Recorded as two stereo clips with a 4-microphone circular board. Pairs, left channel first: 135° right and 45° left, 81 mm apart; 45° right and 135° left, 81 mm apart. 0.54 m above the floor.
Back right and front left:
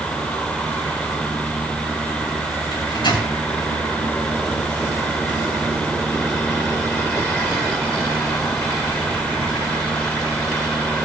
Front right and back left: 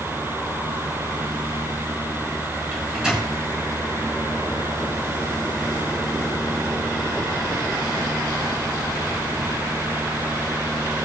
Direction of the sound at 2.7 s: 145° right.